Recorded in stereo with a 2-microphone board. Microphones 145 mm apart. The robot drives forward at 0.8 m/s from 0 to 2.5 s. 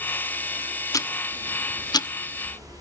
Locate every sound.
0.9 s ticking: 25° left (ahead or behind), 0.9 m; by 2.8 s 20° left (ahead or behind), 1.0 m